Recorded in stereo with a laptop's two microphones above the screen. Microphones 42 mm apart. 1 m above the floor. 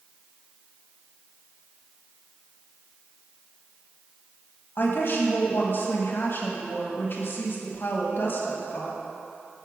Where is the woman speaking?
50° left (ahead or behind), 1.5 m.